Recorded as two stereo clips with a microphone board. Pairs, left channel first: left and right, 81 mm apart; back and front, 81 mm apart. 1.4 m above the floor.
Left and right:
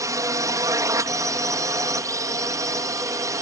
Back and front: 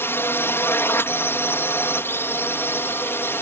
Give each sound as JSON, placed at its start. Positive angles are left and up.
{"t": 0.0, "sound": "a drone", "azimuth_deg": -125}